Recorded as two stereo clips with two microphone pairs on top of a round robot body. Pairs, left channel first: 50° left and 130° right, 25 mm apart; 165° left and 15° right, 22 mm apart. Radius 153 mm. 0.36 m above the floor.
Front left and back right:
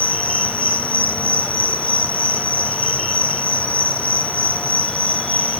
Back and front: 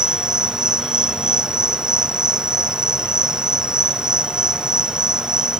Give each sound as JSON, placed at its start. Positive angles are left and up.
{"t": 0.0, "sound": "an insect", "azimuth_deg": 30, "distance_m": 1.9}